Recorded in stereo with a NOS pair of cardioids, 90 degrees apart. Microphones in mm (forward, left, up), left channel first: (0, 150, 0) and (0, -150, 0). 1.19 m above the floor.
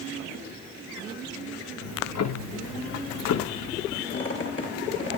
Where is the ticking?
60° left, 1.8 m.